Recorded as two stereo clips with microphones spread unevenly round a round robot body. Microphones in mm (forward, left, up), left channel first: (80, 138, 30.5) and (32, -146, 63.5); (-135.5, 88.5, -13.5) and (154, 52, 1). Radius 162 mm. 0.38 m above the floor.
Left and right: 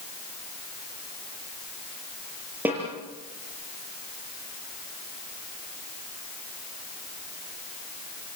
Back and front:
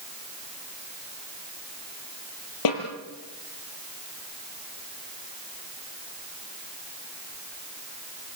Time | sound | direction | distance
2.6 | a snare drum | 175° left | 4.5 m